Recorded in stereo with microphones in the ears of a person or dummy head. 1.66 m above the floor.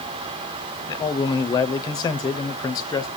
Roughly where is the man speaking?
Left.